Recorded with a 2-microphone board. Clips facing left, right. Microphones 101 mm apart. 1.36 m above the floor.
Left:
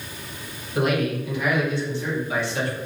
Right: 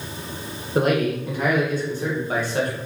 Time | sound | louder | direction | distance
0.8 | a man speaking | right 3 dB | 40° right (ahead or behind) | 1.1 m